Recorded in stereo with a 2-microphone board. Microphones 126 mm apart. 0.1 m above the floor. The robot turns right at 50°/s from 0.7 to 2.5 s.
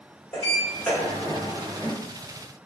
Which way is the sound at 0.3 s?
25° left (ahead or behind).